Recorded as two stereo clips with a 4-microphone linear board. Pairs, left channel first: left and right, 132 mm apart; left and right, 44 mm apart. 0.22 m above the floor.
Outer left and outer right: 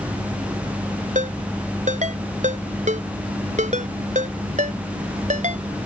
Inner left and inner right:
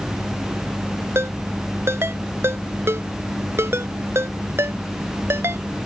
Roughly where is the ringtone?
Right.